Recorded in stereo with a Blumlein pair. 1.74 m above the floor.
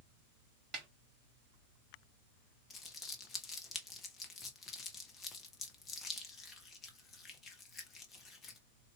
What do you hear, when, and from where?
0.7 s a snare drum: 30° right, 0.7 m
2.7 s crumpling: 20° left, 0.9 m